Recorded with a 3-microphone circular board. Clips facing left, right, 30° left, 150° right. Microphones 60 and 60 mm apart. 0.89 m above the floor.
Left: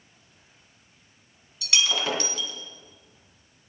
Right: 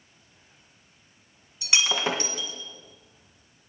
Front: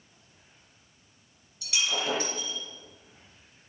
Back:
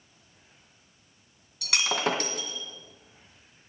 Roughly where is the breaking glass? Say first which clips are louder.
Even, back 3 dB; behind right.